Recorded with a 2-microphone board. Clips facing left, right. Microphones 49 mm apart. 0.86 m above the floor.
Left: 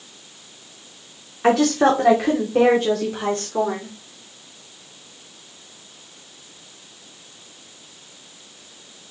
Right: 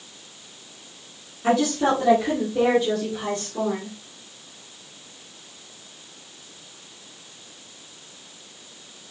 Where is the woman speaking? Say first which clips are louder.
Left 4 dB; 70° left (ahead or behind), 2.5 m; by 3.9 s 50° left (ahead or behind), 3 m.